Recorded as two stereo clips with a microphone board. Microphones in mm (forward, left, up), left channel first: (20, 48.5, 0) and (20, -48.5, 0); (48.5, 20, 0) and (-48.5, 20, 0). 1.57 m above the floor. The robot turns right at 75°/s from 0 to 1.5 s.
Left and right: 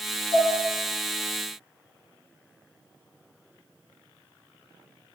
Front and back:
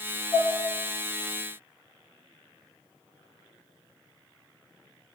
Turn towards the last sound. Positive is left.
turn(degrees=-175)